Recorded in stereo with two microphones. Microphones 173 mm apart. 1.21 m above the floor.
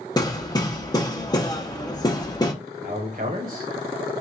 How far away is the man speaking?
About 1.5 m.